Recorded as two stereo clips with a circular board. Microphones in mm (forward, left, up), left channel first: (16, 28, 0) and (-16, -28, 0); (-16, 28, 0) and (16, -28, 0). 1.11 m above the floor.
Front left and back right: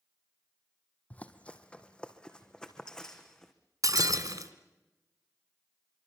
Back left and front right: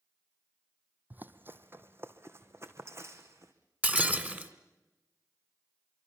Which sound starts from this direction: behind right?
Breaking glass, at 3.8 s.